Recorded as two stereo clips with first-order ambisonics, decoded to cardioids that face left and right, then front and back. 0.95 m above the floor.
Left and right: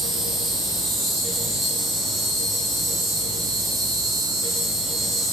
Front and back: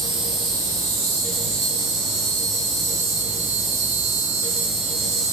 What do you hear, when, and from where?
0.0 s an insect: 165° right, 4 m